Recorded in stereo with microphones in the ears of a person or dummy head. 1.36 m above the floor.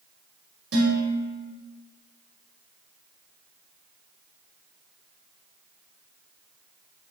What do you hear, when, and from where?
0.7 s dishes clattering: 75° right (ahead or behind), 3.5 m